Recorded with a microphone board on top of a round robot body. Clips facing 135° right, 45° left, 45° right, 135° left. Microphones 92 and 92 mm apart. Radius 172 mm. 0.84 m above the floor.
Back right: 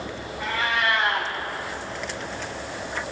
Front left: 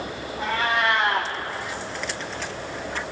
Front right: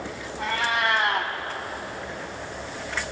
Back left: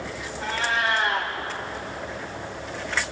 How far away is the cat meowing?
About 1.1 m.